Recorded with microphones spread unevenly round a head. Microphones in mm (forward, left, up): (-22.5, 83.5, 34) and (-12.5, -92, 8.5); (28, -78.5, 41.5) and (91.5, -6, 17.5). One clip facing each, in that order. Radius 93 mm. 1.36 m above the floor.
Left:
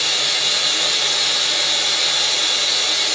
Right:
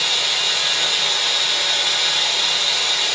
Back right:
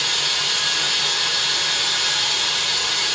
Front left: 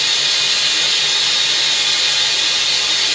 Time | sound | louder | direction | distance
0.0 | running water | left 1 dB, front left 1 dB | 90° left | 1.8 m